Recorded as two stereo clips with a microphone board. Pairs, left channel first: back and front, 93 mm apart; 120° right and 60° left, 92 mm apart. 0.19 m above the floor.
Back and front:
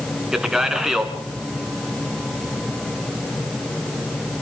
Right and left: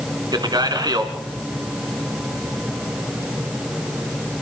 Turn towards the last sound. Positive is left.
turn(degrees=85)